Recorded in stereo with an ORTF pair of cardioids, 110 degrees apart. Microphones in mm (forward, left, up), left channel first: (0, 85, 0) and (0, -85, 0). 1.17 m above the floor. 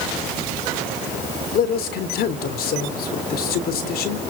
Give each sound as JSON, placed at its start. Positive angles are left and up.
{"t": 1.5, "sound": "a man speaking", "azimuth_deg": 65, "distance_m": 3.5}